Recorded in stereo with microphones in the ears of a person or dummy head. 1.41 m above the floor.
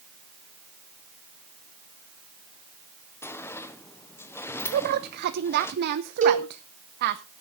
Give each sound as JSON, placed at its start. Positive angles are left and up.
{"t": 3.2, "sound": "a sliding door", "side_deg": 5, "distance_m": 0.8}
{"t": 4.7, "sound": "a woman speaking", "side_deg": -60, "distance_m": 0.7}
{"t": 6.2, "sound": "a cowbell", "side_deg": -45, "distance_m": 2.5}